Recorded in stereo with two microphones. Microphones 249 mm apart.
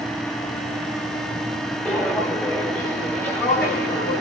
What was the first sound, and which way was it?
Footsteps, 5° left (ahead or behind).